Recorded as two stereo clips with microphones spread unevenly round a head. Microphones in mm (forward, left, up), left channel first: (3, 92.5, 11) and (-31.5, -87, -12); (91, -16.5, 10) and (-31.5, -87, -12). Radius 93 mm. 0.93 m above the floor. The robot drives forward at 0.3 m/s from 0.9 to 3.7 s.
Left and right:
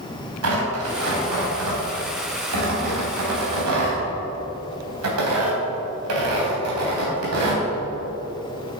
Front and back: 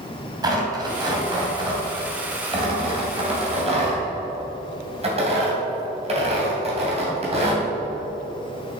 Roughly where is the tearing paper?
Right.